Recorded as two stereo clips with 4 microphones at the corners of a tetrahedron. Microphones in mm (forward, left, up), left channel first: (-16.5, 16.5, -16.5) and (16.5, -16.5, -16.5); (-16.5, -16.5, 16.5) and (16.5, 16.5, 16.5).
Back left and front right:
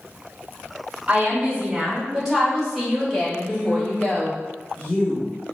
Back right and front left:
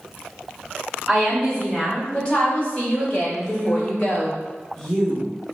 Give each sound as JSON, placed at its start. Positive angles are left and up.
{"t": 1.1, "sound": "a woman speaking", "azimuth_deg": -50, "distance_m": 1.3}
{"t": 3.4, "sound": "a woman speaking", "azimuth_deg": 145, "distance_m": 1.2}